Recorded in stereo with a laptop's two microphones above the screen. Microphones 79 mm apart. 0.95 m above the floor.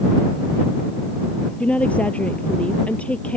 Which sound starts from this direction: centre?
A woman speaking, at 1.6 s.